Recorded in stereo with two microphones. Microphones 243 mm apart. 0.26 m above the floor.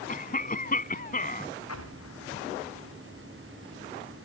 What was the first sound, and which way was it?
A cough, 35° left (ahead or behind).